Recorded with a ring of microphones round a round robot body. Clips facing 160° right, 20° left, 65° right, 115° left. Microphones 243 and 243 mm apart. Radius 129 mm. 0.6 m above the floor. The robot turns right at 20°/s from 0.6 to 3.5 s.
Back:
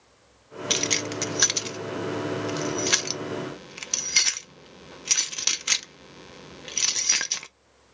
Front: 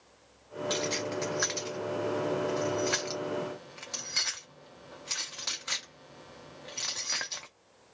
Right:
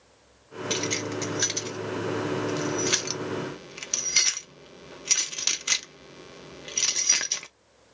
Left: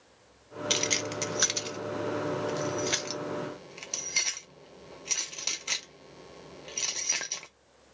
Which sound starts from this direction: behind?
Keys jangling, at 0.7 s.